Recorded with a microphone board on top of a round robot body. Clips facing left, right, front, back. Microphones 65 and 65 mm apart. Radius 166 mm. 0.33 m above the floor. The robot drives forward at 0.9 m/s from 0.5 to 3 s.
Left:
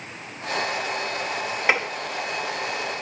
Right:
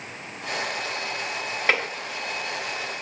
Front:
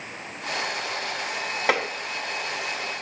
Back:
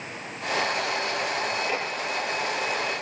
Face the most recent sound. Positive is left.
turn(degrees=15)